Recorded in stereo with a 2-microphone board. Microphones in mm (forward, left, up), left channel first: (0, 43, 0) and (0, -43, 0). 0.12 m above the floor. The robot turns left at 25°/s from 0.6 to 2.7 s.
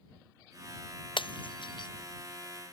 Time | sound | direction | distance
1.2 | breaking glass | 80° left | ?